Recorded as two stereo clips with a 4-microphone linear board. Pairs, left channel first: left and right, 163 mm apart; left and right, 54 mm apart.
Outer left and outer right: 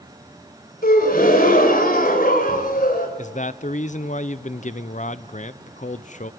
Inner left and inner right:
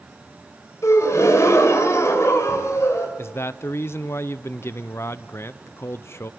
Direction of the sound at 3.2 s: 50° left (ahead or behind).